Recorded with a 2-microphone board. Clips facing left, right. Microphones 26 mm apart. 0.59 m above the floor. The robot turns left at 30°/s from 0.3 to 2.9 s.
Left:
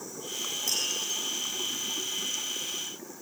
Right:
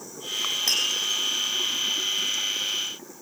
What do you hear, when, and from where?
0.7 s tapping: 55° right (ahead or behind), 5.5 m; by 0.9 s 45° right (ahead or behind), 5.5 m